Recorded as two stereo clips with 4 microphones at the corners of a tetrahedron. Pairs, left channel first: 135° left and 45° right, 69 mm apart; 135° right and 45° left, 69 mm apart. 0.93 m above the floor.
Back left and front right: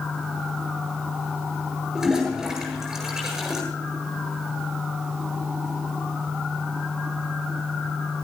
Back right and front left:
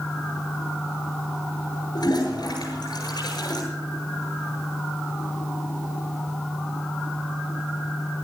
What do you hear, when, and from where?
1.9 s a toilet flushing: 130° right, 8 m